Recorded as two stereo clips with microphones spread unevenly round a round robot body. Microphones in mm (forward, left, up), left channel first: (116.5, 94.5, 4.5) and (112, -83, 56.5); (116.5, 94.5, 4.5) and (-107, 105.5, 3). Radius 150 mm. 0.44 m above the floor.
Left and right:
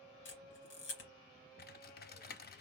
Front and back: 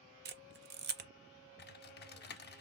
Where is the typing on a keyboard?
45° left, 0.6 m.